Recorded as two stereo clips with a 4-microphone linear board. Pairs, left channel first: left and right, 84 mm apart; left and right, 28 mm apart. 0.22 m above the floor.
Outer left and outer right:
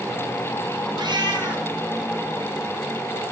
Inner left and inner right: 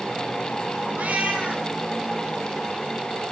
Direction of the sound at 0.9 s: 60° right (ahead or behind).